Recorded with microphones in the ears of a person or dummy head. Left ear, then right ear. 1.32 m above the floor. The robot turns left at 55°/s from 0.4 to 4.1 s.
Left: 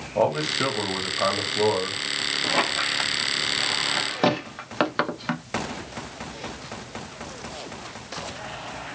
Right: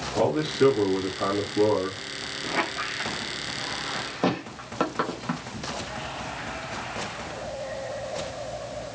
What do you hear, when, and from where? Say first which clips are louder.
0.1 s a man speaking: left 1 dB; 115° left, 1.6 m; by 2.0 s 30° left, 1.6 m
2.4 s a squeak: left 3 dB; 30° left (ahead or behind), 0.6 m; by 5.5 s 25° left (ahead or behind), 0.6 m